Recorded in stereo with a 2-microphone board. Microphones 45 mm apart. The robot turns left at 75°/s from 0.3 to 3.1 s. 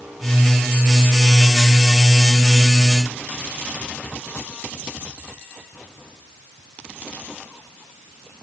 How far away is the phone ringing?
I don't hear a phone ringing.